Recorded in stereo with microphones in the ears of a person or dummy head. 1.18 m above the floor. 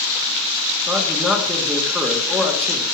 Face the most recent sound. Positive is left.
turn(degrees=0)  # may be behind; listen again after turning